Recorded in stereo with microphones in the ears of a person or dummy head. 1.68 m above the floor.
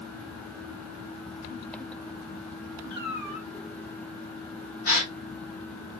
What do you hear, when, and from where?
2.9 s a cat meowing: 50° left (ahead or behind), 1.2 m
4.8 s a gasp: 50° left (ahead or behind), 3.5 m